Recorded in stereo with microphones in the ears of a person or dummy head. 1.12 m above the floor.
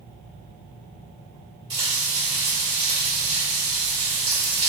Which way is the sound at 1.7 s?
30° right (ahead or behind).